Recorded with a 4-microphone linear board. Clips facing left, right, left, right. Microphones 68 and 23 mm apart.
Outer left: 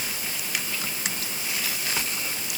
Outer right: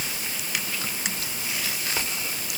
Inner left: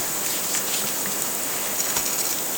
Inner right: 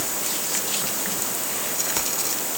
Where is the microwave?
No microwave in this recording.